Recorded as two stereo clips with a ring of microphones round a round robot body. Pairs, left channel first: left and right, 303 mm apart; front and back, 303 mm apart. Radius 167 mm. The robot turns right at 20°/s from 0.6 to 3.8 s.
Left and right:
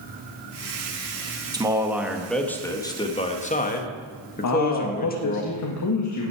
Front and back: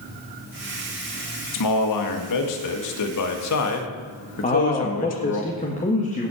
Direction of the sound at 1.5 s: 15° right.